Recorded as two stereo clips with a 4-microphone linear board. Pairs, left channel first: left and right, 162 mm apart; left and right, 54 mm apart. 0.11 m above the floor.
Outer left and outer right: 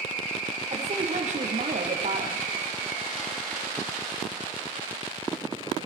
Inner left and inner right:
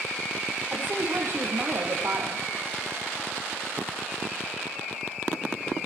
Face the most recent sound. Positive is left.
turn(degrees=-50)  # may be behind; listen again after turning